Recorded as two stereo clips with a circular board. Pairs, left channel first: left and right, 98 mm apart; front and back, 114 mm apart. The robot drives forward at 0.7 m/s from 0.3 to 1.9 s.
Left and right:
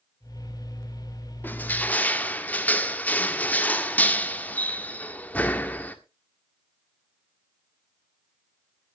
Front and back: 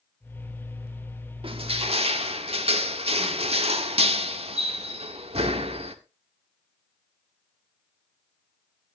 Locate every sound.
1.4 s crushing: 155° left, 1.4 m; by 6.0 s 160° left, 1.7 m